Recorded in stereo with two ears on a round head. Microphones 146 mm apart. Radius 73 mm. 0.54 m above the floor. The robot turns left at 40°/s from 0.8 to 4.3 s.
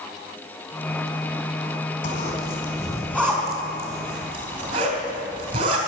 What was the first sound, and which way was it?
A zipper, 50° left (ahead or behind).